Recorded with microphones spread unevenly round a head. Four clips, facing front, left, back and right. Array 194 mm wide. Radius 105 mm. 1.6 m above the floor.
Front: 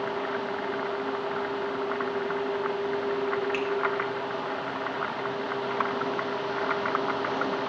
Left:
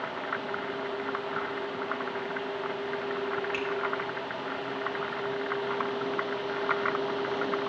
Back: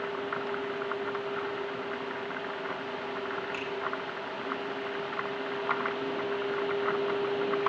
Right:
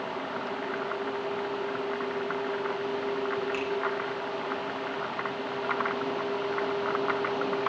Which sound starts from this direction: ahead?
A finger snap, at 3.5 s.